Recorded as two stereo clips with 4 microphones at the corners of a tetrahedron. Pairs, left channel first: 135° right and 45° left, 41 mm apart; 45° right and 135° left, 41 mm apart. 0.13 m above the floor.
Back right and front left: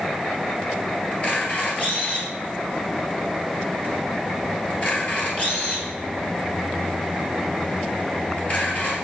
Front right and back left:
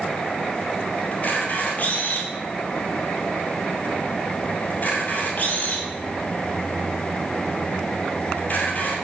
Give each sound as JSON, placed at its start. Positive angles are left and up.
{"t": 1.1, "sound": "a camera shutter", "azimuth_deg": -85, "distance_m": 2.5}